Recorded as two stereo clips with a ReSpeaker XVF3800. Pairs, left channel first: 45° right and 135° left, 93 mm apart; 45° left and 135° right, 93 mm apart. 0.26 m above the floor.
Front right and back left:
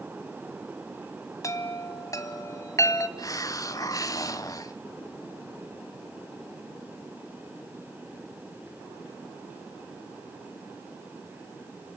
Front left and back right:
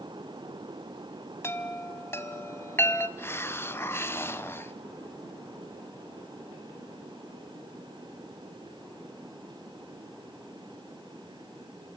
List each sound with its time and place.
1.4 s a chime: 10° right, 1.7 m
3.2 s a hiss: 10° right, 1.1 m